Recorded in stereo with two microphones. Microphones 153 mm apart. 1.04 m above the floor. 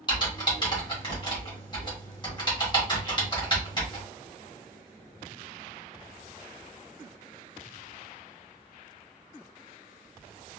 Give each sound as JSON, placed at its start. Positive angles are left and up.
{"t": 0.1, "sound": "typing on a keyboard", "side_deg": 30, "distance_m": 1.5}